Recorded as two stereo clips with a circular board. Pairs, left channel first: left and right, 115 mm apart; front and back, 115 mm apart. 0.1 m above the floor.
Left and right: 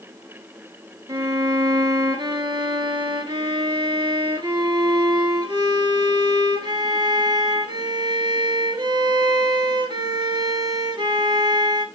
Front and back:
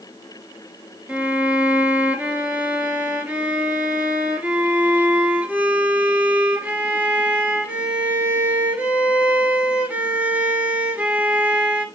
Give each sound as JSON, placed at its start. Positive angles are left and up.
{"t": 1.1, "sound": "a violin", "azimuth_deg": -110, "distance_m": 0.9}